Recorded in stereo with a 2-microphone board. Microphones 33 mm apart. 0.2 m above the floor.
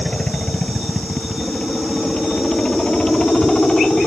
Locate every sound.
0.0 s a helicopter: 25° left (ahead or behind); by 4.1 s 30° left (ahead or behind)